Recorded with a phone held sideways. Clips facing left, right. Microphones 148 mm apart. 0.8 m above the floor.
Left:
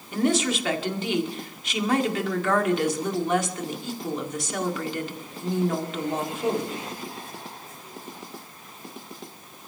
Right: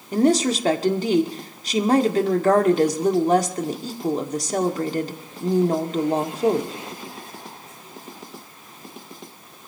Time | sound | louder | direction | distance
0.1 | a woman speaking | right 5 dB | 40° right (ahead or behind) | 1.8 m